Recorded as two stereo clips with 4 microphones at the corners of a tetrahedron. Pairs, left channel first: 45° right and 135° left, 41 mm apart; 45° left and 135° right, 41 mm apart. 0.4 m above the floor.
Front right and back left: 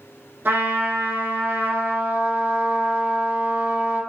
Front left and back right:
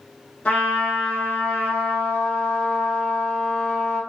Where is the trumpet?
105° left, 0.7 m.